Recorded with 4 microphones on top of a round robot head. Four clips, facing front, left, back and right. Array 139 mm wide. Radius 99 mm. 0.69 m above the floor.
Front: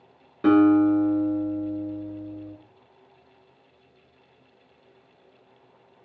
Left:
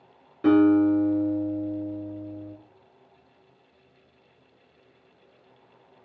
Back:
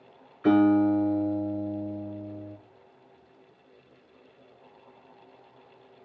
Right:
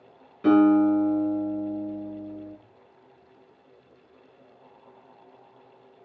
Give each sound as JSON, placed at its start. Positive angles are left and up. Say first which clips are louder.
{"t": 0.4, "sound": "a guitar", "louder": "even, front 3 dB", "azimuth_deg": 20, "distance_m": 5.5}